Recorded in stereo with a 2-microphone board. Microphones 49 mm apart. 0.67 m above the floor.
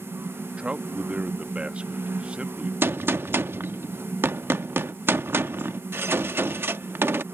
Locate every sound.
0.6 s a man speaking: 25° right (ahead or behind)
2.8 s a gunshot: 50° right (ahead or behind)